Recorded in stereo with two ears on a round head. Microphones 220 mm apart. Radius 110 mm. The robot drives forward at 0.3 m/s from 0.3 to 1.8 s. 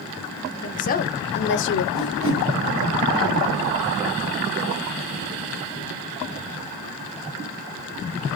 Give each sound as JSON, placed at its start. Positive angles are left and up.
{"t": 0.6, "sound": "a woman speaking", "side_deg": 30, "distance_m": 0.8}
{"t": 1.9, "sound": "a whoosh", "side_deg": -20, "distance_m": 2.5}